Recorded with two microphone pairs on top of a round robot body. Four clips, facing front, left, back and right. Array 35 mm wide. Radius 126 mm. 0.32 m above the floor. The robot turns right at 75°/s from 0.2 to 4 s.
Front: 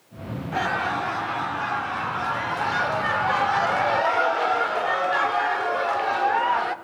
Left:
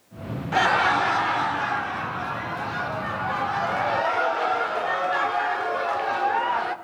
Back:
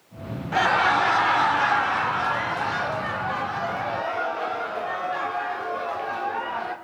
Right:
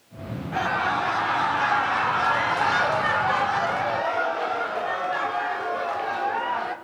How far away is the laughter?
About 1.8 m.